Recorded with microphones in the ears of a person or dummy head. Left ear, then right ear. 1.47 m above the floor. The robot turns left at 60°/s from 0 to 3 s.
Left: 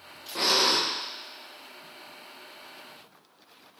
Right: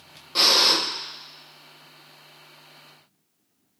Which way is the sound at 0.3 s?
30° right (ahead or behind).